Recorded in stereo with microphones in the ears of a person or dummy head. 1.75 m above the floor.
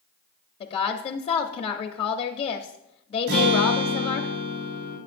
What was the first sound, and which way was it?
A woman speaking, 35° left (ahead or behind).